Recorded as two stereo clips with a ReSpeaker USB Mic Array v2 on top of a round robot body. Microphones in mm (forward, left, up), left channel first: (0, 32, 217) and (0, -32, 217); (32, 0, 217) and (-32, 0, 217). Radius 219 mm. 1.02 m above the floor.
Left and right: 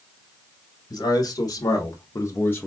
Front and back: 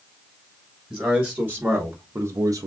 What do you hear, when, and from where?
0.9 s a man speaking: 95° left, 1.6 m; by 2.7 s 155° left, 0.6 m